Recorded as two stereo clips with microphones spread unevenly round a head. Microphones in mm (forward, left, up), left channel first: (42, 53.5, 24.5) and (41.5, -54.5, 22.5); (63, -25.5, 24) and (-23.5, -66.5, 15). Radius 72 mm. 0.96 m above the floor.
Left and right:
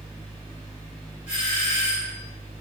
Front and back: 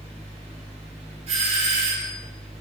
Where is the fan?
Straight behind, 3.5 m.